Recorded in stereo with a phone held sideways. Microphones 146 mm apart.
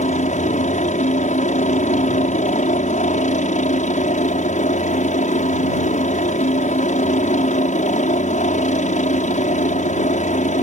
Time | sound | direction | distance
0.0 | a helicopter | 55° left (ahead or behind) | ?